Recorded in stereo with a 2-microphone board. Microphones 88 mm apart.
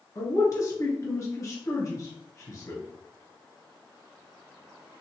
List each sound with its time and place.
0.1 s a man speaking: 40° left (ahead or behind), 2.0 m